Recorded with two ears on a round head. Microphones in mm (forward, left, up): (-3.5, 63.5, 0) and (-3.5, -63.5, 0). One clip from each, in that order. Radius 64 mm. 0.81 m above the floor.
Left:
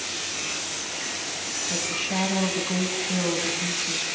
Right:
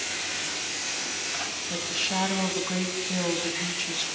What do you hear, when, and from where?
1.7 s a woman speaking: 35° right (ahead or behind), 5.5 m